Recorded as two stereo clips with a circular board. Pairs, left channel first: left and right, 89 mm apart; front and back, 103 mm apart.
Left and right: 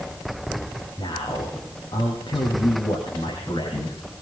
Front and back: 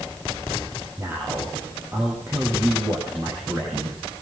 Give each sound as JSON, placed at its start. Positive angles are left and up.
{"t": 1.0, "sound": "a man speaking", "azimuth_deg": 120, "distance_m": 7.0}